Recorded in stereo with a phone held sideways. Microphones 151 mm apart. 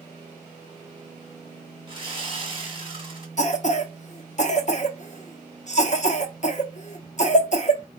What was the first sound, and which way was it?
Sawing, 35° right (ahead or behind).